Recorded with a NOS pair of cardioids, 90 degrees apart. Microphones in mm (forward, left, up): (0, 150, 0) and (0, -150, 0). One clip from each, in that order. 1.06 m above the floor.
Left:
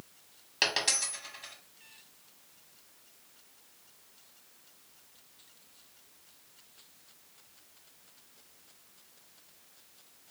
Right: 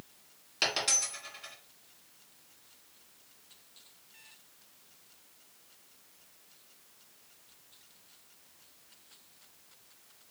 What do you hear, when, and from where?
0.6 s a dropped coin: 25° left, 1.3 m